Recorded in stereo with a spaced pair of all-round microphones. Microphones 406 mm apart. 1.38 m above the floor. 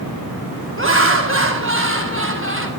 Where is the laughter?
30° right (ahead or behind), 1.7 m.